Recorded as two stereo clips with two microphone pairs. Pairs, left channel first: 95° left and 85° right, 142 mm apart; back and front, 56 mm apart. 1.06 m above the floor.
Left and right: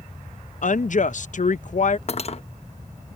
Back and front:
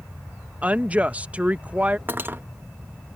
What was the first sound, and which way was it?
A woman speaking, 70° left.